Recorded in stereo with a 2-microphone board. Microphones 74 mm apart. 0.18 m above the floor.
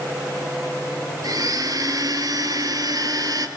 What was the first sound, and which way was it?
A blender, 55° right (ahead or behind).